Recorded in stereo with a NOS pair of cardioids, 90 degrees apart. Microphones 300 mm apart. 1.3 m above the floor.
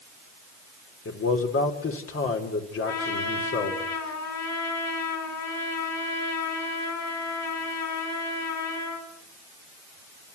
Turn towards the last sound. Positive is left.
turn(degrees=65)